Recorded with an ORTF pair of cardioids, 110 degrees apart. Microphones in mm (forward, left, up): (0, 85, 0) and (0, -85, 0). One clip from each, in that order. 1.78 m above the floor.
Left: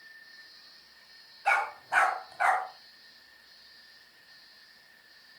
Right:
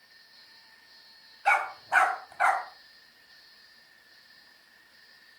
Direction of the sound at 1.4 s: 20° right.